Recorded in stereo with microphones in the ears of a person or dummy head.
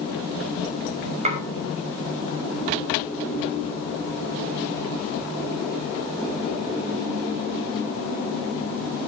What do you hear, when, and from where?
1.2 s dishes clattering: 45° right (ahead or behind), 5.5 m